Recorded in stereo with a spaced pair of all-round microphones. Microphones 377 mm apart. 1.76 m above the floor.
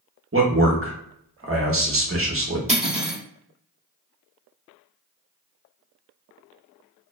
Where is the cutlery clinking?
20° right (ahead or behind), 0.9 m.